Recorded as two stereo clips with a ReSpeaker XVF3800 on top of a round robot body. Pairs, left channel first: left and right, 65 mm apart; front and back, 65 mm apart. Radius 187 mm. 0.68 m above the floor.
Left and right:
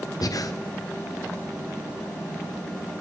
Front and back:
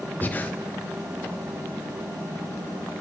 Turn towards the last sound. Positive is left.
turn(degrees=60)